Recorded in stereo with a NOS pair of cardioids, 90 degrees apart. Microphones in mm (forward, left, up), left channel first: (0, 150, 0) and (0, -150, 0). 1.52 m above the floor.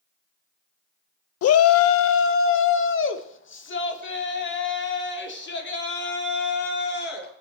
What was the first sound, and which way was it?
A shout, 55° left.